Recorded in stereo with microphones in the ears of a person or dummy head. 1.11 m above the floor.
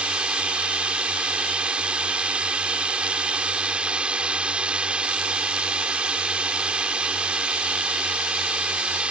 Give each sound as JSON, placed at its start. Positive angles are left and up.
{"t": 0.0, "sound": "a drone", "side_deg": -5}